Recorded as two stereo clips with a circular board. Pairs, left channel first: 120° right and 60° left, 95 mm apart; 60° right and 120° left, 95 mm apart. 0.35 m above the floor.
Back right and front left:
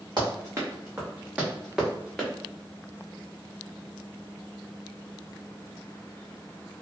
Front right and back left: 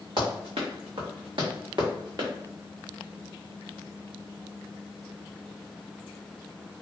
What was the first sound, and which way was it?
Running footsteps, 105° left.